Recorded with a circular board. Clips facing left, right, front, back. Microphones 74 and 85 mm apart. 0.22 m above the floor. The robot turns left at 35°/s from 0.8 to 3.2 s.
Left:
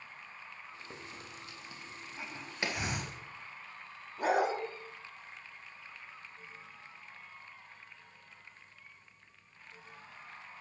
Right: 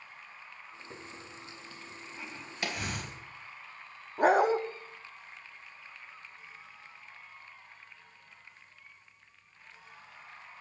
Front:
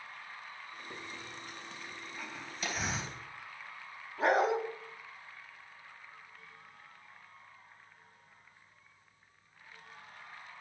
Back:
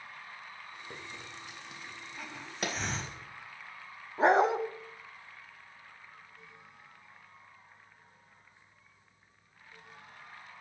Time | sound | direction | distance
0.9 | a hiss | 145° left | 1.2 m
2.6 | a pop | 150° left | 1.9 m
4.2 | a dog barking | 125° right | 0.6 m